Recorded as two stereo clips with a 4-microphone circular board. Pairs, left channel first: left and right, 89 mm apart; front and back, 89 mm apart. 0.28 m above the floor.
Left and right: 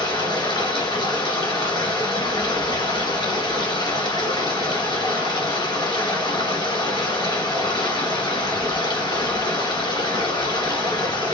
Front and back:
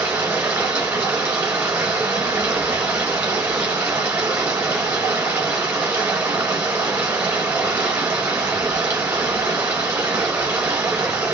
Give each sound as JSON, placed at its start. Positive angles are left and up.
{"t": 0.0, "sound": "running water", "azimuth_deg": 115, "distance_m": 1.4}